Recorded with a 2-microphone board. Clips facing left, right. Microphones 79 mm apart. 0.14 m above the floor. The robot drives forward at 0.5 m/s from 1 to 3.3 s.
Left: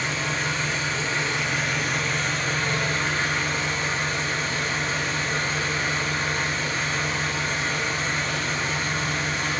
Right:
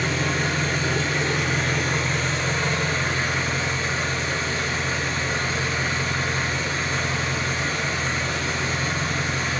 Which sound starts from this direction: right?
An engine running, at 0.0 s.